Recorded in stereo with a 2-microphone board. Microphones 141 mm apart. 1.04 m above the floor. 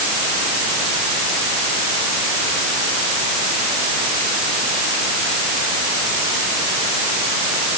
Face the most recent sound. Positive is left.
No sound to turn to.